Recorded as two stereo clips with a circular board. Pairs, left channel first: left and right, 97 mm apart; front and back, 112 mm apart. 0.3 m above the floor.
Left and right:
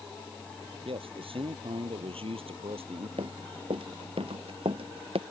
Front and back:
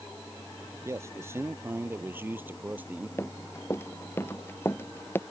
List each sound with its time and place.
0.8 s a man speaking: 115° right; by 3.1 s 105° right
3.2 s running footsteps: 70° right